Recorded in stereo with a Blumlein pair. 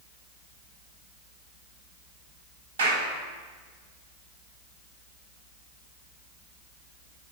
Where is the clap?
65° right, 8 m.